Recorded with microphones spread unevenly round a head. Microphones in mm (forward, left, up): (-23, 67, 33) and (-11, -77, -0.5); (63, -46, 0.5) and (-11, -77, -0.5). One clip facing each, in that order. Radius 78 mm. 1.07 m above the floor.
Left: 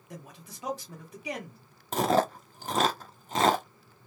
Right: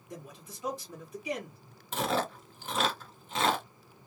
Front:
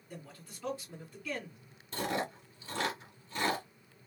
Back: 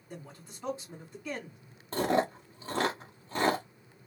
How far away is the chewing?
About 0.7 m.